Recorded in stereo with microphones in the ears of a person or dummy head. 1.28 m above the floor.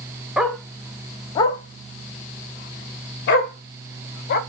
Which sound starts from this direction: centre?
A dog barking, at 0.4 s.